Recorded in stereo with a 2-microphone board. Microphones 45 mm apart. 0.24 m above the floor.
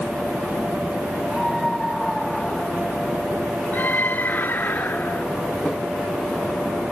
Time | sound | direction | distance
1.3 | a scream | centre (ahead or behind) | ?
3.7 | a scream | 45° left (ahead or behind) | ?